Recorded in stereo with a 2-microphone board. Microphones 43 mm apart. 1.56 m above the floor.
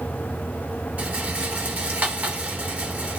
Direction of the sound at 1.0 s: 40° right (ahead or behind).